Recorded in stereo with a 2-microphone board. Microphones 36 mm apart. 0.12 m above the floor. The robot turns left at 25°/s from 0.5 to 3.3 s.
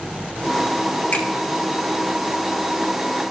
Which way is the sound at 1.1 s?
50° left (ahead or behind).